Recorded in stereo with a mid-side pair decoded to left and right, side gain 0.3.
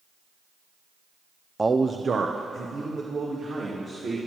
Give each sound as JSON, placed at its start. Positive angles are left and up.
{"t": 1.6, "sound": "a man speaking", "azimuth_deg": -25, "distance_m": 0.6}